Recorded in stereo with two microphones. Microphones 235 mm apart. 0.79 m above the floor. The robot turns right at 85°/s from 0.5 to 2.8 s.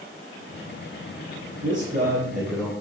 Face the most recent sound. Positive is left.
turn(degrees=35)